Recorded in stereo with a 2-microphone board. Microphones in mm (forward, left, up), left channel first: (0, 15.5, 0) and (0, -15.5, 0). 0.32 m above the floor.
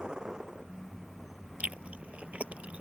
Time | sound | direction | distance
0.0 | a vehicle | 25° right (ahead or behind) | ?
1.6 | chewing | 50° right (ahead or behind) | ?